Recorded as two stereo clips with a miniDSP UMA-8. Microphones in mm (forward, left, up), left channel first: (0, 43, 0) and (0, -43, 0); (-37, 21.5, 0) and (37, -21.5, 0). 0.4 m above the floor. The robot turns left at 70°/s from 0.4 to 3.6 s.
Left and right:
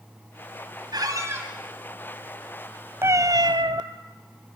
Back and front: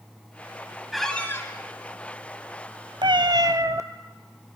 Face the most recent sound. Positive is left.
turn(degrees=-75)